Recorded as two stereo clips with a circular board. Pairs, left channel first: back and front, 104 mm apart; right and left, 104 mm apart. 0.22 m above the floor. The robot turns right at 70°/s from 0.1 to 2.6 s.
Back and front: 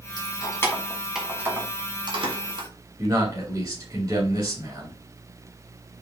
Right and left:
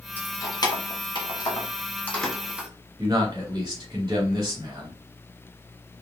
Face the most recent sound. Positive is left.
turn(degrees=45)